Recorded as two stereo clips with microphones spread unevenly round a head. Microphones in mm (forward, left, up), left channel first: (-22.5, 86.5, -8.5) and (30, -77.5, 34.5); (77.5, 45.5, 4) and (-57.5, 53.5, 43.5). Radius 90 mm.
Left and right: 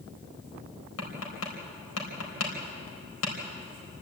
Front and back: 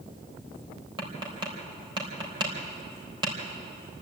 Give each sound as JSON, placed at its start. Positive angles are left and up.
{"t": 1.0, "sound": "tapping", "azimuth_deg": 120, "distance_m": 4.0}